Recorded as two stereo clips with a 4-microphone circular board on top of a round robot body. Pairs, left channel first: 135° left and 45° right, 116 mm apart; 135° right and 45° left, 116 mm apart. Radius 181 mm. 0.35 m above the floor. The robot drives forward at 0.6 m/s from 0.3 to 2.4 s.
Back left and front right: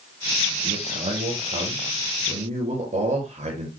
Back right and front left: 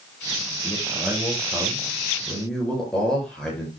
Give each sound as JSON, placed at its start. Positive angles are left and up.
{"t": 0.6, "sound": "a man speaking", "azimuth_deg": -45, "distance_m": 9.0}